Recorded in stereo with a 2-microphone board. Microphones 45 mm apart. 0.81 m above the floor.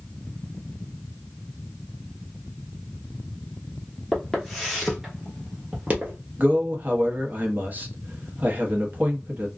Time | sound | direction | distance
4.1 | footsteps | 10° left (ahead or behind) | 1.3 m
6.4 | a man speaking | 45° right (ahead or behind) | 0.9 m